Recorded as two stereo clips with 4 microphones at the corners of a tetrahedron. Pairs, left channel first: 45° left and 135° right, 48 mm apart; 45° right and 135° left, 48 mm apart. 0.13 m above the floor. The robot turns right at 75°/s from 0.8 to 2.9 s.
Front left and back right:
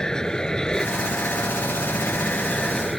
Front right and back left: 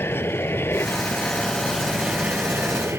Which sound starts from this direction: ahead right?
An aircraft, at 0.0 s.